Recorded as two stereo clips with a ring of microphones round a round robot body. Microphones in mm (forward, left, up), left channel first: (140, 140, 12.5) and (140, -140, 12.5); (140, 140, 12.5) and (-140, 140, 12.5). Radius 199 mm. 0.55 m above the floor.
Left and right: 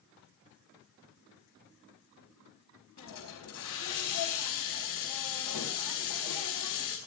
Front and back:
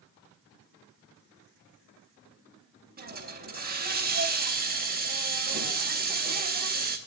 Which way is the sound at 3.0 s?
125° left.